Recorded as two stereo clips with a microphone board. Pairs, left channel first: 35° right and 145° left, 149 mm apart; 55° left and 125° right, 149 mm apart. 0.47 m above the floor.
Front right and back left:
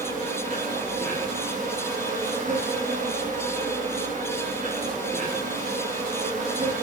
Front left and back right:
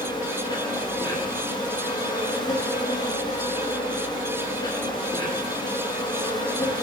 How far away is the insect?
About 9.5 m.